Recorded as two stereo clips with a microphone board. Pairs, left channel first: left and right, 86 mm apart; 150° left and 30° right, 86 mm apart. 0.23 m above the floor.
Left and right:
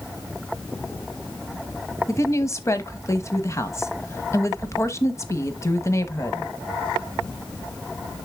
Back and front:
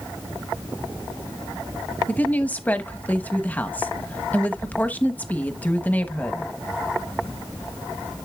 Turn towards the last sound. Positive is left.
turn(degrees=95)